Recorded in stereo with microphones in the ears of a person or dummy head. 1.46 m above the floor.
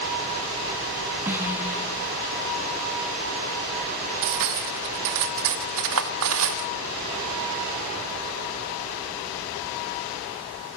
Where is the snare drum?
10° right (ahead or behind), 4 m.